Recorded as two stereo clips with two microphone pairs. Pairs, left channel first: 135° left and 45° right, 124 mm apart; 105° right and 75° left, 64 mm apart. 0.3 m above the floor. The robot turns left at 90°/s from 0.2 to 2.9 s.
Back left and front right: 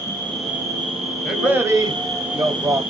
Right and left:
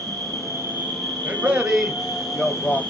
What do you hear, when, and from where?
0.0 s an insect: 65° left, 1.1 m; by 2.9 s straight behind, 1.1 m
1.2 s a man speaking: 45° left, 1.2 m; by 2.8 s 100° right, 1.2 m